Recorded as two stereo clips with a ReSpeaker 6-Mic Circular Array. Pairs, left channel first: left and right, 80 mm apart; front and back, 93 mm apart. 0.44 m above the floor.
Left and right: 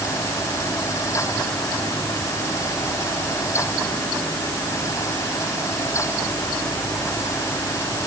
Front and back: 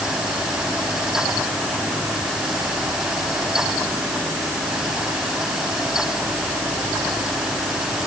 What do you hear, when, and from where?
Only background noise.